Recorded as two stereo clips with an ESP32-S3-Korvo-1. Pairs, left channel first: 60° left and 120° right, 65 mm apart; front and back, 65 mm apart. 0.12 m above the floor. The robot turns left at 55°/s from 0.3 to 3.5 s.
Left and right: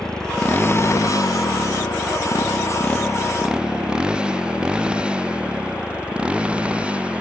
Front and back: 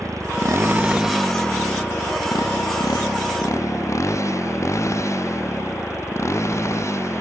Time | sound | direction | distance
0.0 | a motorcycle | 140° left | ?